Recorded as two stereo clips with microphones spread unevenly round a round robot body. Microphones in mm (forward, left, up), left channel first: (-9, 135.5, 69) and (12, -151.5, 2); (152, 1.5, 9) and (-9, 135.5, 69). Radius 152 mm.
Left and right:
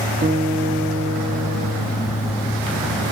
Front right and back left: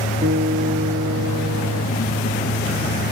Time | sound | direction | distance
0.2 | a guitar | 155° right | 4.5 m